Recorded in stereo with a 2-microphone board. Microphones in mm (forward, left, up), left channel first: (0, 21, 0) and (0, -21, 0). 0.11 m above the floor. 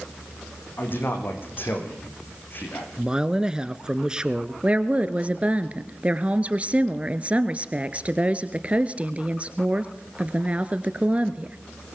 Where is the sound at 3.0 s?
20° right (ahead or behind), 1.2 m.